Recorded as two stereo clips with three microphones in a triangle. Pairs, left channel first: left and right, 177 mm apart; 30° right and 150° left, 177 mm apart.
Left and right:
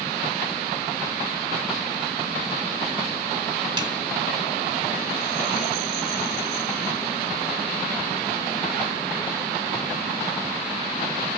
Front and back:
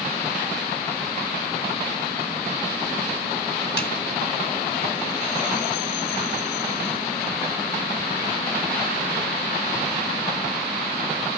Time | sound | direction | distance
3.8 | a snare drum | 25° right | 2.5 m